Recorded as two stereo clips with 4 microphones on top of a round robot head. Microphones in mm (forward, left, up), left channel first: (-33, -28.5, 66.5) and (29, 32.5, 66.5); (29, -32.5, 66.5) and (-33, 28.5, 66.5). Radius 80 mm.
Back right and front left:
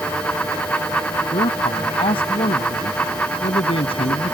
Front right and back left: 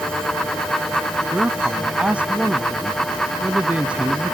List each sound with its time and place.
1.3 s a man speaking: 150° right